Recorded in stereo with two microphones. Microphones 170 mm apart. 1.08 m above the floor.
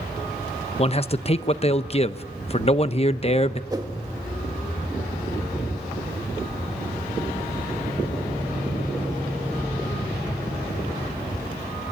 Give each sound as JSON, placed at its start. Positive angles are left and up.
{"t": 0.8, "sound": "a man speaking", "side_deg": 35, "distance_m": 0.8}
{"t": 3.7, "sound": "a whoosh", "side_deg": -20, "distance_m": 1.5}